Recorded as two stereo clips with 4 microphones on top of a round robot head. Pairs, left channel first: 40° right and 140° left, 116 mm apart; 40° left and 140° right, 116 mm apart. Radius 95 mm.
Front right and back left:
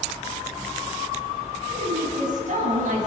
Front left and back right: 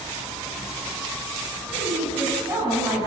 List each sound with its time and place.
1.7 s a woman speaking: 155° left, 10 m; by 3.1 s 150° left, 9 m